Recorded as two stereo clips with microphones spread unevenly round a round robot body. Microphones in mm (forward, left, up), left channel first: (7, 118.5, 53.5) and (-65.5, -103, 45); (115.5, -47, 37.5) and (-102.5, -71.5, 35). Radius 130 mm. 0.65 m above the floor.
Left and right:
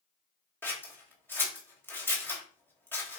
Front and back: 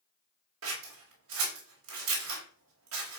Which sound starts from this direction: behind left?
Scissors, at 0.6 s.